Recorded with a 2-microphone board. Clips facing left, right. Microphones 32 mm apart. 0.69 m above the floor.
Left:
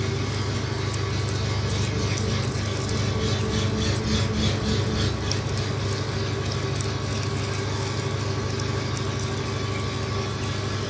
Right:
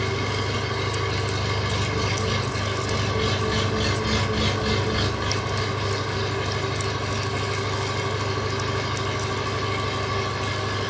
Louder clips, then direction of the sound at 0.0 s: Right 3 dB; 75° right (ahead or behind).